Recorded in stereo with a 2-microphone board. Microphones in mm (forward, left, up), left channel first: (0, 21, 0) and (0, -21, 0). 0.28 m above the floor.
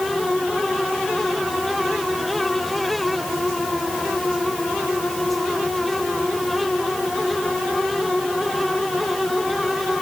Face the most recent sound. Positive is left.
No sound to turn to.